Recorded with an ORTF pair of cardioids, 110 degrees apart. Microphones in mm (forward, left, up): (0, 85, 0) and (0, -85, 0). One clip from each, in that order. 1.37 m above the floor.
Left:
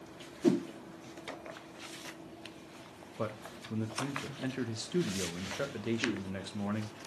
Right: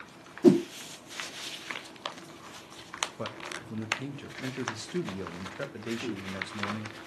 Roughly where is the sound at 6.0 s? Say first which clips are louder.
Left 2 dB; ahead.